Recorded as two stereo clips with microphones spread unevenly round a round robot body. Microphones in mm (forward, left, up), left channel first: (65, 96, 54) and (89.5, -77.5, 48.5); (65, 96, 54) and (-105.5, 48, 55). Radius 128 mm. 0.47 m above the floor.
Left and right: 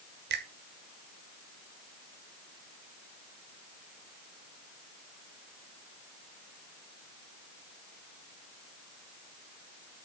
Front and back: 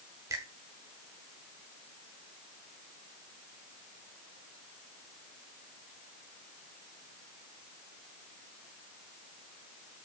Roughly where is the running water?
I don't hear running water.